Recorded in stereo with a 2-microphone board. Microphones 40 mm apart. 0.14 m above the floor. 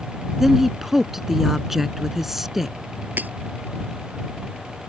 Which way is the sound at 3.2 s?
45° right (ahead or behind).